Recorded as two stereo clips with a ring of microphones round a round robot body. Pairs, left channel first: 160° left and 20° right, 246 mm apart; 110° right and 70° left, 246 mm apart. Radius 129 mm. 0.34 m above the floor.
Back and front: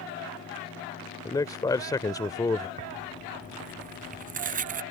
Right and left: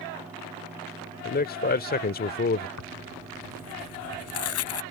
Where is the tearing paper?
80° right.